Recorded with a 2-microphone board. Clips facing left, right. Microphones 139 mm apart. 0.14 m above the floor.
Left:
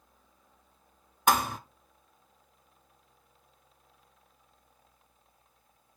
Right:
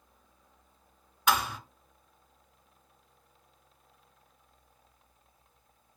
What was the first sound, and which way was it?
A thud, 45° left (ahead or behind).